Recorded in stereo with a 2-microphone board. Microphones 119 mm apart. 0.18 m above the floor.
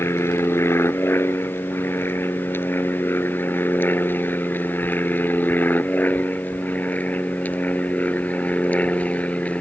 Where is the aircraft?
20° left (ahead or behind); by 9.6 s 10° left (ahead or behind).